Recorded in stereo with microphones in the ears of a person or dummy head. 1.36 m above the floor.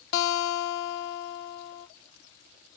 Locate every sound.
0.1 s a guitar: 70° left (ahead or behind), 1.0 m